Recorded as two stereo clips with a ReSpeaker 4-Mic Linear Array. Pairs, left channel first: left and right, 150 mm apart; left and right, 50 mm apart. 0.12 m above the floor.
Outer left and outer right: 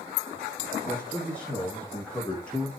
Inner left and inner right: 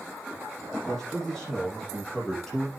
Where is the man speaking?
5° left (ahead or behind), 7 m.